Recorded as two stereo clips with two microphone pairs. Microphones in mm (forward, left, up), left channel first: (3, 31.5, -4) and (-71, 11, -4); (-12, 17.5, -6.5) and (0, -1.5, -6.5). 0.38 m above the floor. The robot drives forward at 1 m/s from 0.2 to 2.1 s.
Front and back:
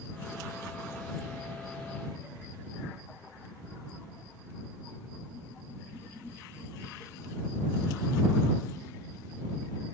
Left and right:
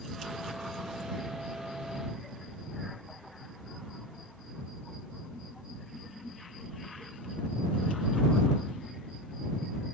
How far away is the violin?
I don't hear a violin.